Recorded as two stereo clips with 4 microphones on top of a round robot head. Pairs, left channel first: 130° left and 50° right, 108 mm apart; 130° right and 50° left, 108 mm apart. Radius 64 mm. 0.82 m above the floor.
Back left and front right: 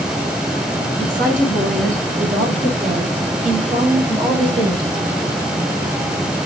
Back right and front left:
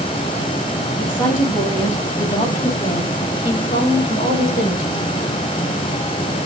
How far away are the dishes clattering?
No dishes clattering in this recording.